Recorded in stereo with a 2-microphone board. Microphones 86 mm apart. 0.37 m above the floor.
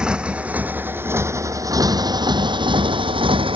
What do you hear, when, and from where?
0.0 s a motorcycle: 10° right (ahead or behind); by 3.6 s 85° right